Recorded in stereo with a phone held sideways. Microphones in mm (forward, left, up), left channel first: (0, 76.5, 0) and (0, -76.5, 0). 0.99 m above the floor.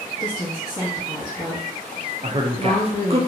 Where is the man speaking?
40° right (ahead or behind), 0.5 m.